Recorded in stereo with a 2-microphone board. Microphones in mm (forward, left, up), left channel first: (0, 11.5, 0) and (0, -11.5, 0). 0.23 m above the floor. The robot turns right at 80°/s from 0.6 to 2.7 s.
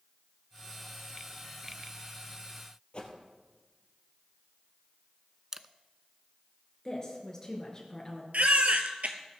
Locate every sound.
2.9 s a whoosh: 45° left (ahead or behind), 2.5 m
5.5 s a camera shutter: 25° right (ahead or behind), 0.5 m
6.8 s a woman speaking: 25° left (ahead or behind), 4.5 m
8.3 s a baby crying: 80° right, 1.4 m